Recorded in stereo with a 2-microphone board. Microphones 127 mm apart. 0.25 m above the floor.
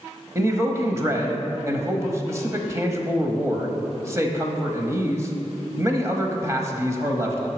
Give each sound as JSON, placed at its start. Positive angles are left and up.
{"t": 0.3, "sound": "a man speaking", "side_deg": -25, "distance_m": 1.0}